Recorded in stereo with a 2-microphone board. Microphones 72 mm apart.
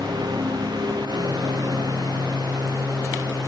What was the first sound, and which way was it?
A lawn mower, 75° right (ahead or behind).